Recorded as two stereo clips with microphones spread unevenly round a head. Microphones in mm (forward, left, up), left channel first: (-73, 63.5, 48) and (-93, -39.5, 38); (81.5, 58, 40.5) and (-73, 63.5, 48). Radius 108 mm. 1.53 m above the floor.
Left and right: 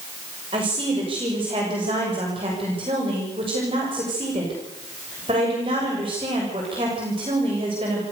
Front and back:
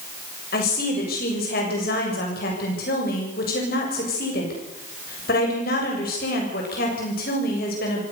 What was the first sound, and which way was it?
A woman speaking, 45° right.